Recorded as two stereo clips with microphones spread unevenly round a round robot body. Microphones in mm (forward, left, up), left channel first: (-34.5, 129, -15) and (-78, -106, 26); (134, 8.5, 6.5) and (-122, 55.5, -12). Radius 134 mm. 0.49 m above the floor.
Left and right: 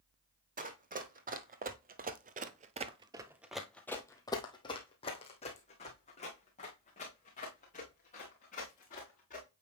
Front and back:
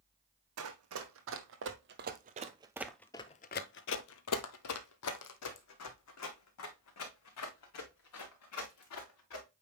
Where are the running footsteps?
150° right, 1.4 m; by 9.4 s 15° left, 3.5 m.